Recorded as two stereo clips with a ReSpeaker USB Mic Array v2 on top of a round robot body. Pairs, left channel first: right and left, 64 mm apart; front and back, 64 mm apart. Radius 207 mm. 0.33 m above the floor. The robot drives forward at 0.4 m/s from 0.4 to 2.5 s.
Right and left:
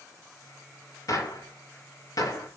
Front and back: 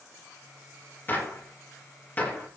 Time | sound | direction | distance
1.1 | a gunshot | 60° right | 5.5 m